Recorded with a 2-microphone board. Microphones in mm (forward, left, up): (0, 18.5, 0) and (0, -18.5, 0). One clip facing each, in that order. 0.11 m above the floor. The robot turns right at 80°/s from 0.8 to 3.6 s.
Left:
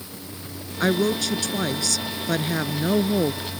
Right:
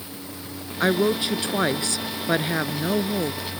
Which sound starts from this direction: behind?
A woman speaking, at 0.8 s.